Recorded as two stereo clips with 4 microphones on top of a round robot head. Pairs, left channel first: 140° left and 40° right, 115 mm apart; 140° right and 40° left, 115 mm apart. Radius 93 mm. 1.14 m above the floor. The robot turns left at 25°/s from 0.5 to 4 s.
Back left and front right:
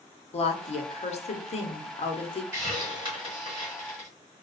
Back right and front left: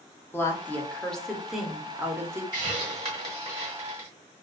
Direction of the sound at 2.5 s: 10° left.